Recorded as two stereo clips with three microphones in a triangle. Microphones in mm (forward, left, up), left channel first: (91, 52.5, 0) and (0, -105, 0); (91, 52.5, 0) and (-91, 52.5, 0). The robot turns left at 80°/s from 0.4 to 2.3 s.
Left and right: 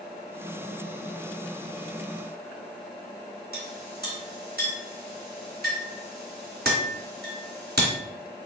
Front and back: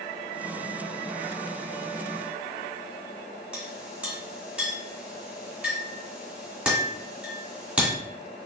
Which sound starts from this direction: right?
A clink, at 3.5 s.